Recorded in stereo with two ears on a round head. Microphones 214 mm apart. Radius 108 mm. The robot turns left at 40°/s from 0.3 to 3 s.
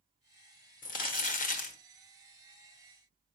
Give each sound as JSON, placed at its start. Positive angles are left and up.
{"t": 0.8, "sound": "crumpling", "azimuth_deg": 100, "distance_m": 1.0}